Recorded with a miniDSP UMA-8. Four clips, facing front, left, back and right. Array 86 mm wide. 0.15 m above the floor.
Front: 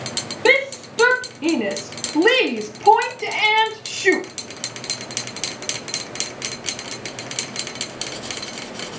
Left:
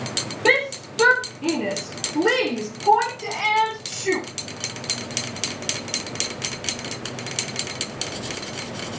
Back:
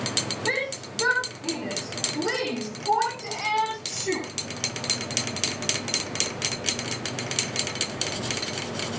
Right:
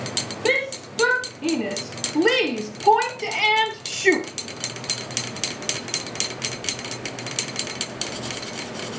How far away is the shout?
About 4 m.